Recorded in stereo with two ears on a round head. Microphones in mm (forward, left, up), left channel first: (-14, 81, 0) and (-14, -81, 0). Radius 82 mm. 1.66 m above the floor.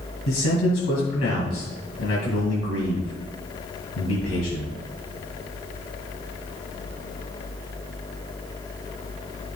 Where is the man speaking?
80° left, 2 m.